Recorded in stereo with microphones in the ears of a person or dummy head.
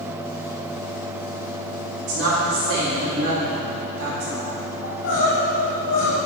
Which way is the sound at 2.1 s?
70° right (ahead or behind).